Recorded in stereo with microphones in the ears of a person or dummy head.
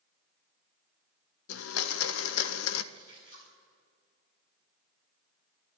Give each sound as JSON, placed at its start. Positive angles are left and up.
{"t": 1.5, "sound": "a blender", "side_deg": 80, "distance_m": 0.6}
{"t": 2.9, "sound": "a splash", "side_deg": 45, "distance_m": 3.5}